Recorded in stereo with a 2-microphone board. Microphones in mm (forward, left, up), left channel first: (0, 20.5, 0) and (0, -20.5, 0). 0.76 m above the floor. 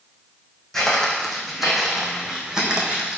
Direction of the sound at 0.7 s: 10° left (ahead or behind).